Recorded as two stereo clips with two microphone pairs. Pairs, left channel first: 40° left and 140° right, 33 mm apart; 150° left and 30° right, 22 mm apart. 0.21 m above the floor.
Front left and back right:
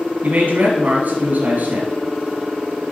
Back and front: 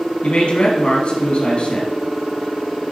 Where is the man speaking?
175° right, 3 m.